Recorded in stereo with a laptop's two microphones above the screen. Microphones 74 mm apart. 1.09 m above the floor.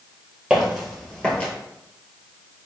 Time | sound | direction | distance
0.5 | footsteps | 15° right (ahead or behind) | 1.3 m